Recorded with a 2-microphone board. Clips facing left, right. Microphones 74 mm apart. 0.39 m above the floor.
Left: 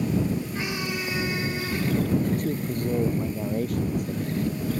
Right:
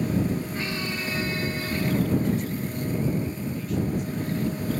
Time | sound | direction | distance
0.6 | a squeak | 15° left (ahead or behind) | ?
2.2 | a man speaking | 55° left (ahead or behind) | ?